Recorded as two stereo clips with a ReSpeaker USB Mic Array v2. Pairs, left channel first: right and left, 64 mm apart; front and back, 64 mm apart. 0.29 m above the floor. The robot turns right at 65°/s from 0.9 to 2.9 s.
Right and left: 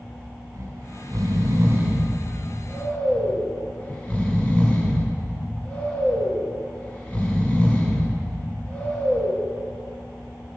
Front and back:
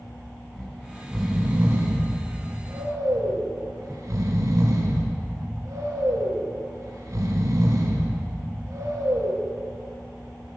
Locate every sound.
0.5 s snoring: 70° left, 1.7 m; by 9.4 s 160° right, 1.7 m